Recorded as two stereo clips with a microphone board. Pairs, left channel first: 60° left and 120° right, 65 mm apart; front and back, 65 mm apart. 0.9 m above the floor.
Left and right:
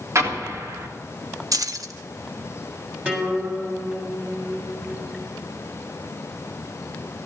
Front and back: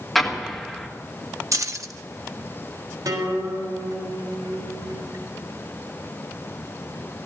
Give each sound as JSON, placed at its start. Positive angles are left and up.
{"t": 0.1, "sound": "an explosion", "azimuth_deg": -90, "distance_m": 1.7}
{"t": 1.5, "sound": "keys jangling", "azimuth_deg": -145, "distance_m": 0.6}
{"t": 3.0, "sound": "a guitar", "azimuth_deg": 180, "distance_m": 3.0}